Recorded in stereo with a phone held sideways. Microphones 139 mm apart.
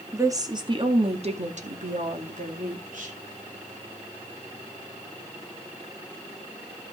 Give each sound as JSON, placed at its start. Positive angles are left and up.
{"t": 0.1, "sound": "a woman speaking", "side_deg": -20, "distance_m": 2.0}